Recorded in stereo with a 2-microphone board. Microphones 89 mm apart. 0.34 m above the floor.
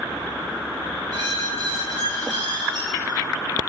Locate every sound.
1.1 s a squeak: 55° right (ahead or behind), 3.5 m